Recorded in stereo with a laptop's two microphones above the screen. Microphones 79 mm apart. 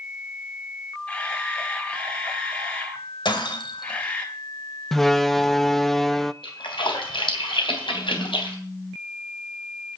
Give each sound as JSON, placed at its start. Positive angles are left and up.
{"t": 1.1, "sound": "a camera shutter", "side_deg": 15, "distance_m": 4.0}
{"t": 3.2, "sound": "breaking glass", "side_deg": 70, "distance_m": 3.0}
{"t": 4.9, "sound": "a door slam", "side_deg": 5, "distance_m": 0.7}
{"t": 6.4, "sound": "a splash", "side_deg": 80, "distance_m": 3.0}